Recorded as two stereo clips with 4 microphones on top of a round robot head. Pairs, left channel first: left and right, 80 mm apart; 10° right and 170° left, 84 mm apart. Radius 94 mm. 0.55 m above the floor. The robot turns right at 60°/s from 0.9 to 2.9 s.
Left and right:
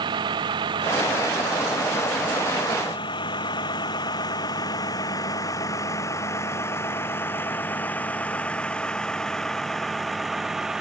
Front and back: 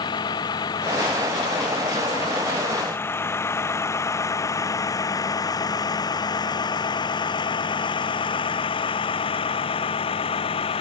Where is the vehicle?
50° right; by 10.8 s 5° right.